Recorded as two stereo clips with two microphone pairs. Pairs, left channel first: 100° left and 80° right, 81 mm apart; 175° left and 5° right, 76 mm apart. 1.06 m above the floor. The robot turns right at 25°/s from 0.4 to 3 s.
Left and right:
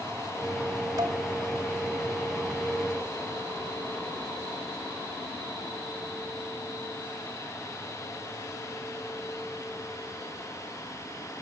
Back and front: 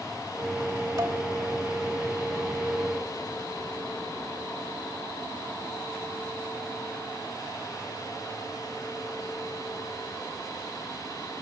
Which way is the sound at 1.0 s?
35° right.